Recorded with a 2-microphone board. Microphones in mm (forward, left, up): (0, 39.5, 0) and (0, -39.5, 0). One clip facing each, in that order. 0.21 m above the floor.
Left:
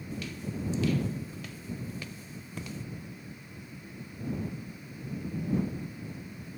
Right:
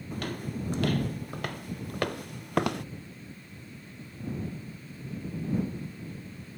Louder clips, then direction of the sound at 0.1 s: Right 3 dB; 55° right (ahead or behind).